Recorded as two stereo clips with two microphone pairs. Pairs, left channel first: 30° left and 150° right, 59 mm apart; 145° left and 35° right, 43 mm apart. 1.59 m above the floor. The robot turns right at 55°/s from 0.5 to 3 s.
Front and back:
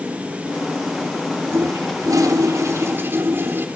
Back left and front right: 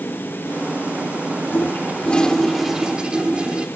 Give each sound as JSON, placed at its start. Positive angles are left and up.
{"t": 1.5, "sound": "a toilet flushing", "azimuth_deg": 175, "distance_m": 2.5}